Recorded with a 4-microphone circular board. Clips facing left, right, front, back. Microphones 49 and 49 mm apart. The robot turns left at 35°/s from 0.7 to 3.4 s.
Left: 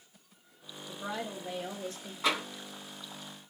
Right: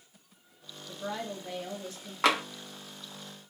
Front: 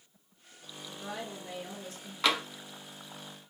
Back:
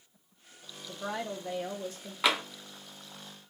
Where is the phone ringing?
I don't hear a phone ringing.